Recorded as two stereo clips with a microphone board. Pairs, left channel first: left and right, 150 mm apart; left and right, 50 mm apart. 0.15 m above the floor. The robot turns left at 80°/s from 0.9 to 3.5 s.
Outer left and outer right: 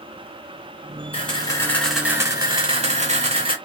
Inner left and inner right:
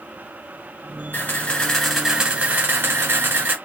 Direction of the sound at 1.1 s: 60° left.